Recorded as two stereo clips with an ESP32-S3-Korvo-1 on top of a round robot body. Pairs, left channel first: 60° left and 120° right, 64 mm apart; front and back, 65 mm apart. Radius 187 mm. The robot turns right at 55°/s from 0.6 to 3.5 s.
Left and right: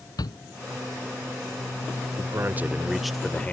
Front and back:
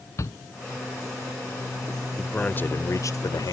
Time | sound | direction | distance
0.2 | a shout | 40° left | ?
2.2 | a man speaking | 80° right | ?